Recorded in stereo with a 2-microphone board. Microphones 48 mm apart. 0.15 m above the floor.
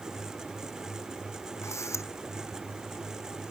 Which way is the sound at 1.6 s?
75° left (ahead or behind).